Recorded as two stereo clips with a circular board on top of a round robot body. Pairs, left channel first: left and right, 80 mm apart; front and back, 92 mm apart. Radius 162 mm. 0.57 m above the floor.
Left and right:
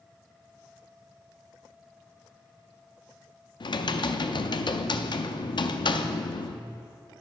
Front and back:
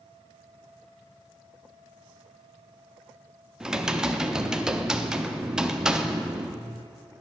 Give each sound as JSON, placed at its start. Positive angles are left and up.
{"t": 3.6, "sound": "typing on a keyboard", "azimuth_deg": 95, "distance_m": 0.5}